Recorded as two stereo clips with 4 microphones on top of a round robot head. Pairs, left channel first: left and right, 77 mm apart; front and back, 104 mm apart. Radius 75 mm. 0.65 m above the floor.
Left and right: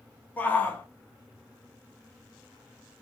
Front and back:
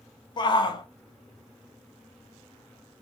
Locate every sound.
0.4 s a shout: 25° left, 0.8 m